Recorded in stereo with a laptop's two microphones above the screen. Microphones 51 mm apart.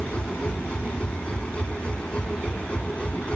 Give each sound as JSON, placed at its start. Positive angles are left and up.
{"t": 0.0, "sound": "a machine running", "side_deg": 20}